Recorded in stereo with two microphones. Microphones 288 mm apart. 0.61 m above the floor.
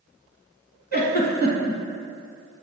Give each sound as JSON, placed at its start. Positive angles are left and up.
{"t": 0.9, "sound": "a giggle", "side_deg": 35, "distance_m": 0.8}